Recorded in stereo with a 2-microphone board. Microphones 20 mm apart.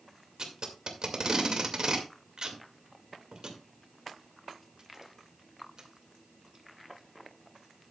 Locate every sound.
0.4 s tape being pulled: 45° right (ahead or behind), 2 m